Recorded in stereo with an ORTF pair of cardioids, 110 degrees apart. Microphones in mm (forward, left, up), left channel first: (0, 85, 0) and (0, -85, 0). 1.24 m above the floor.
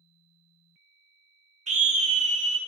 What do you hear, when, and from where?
1.7 s a scream: 45° right, 0.7 m